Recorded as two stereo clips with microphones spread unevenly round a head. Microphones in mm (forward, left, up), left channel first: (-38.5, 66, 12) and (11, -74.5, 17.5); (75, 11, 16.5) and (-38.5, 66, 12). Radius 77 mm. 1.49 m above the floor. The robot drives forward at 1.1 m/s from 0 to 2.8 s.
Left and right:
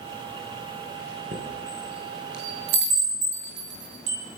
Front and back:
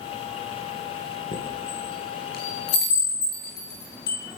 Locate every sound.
1.3 s a chime: 45° right, 9 m; by 4.2 s 55° right, 8 m